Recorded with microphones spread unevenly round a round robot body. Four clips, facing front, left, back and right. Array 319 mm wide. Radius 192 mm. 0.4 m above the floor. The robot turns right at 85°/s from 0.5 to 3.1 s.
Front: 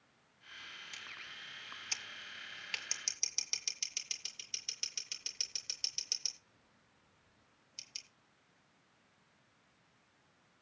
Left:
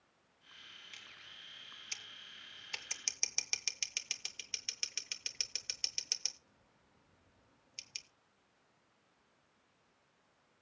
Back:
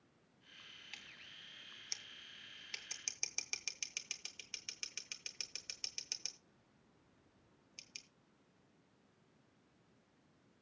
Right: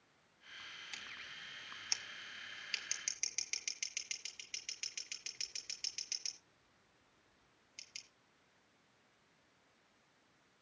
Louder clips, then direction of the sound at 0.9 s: Right 6 dB, front 6 dB; 110° right.